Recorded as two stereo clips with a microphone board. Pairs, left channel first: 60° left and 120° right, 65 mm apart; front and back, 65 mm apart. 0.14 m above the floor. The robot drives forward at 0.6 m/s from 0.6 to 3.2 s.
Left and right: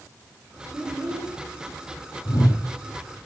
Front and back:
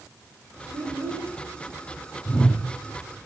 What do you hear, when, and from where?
0.7 s a child speaking: 165° left, 6 m; by 1.3 s 170° left, 6.5 m
2.2 s a whoosh: 65° left, 0.9 m; by 2.6 s 80° left, 0.8 m